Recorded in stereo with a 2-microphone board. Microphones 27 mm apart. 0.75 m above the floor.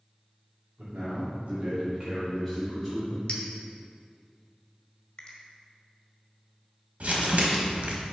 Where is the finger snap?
30° left (ahead or behind), 1.2 m.